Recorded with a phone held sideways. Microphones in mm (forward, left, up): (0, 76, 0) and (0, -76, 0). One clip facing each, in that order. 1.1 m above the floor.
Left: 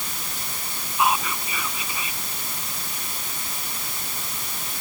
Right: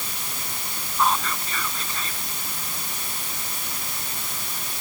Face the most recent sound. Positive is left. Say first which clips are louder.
# left 1 dB
turn(degrees=10)  # may be behind; listen again after turning